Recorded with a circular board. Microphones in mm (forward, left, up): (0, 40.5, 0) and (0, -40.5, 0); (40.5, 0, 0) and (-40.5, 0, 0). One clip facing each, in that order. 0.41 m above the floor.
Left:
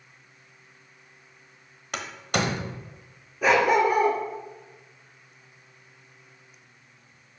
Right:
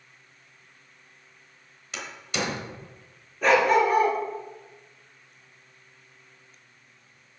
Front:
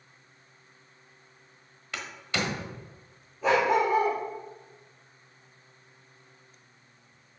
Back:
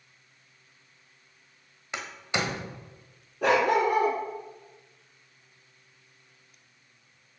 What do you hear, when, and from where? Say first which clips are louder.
1.9 s a door slam: left 4 dB, back 2 dB; 115° left, 1.2 m
3.4 s a dog barking: even, back 1 dB; 175° left, 2.5 m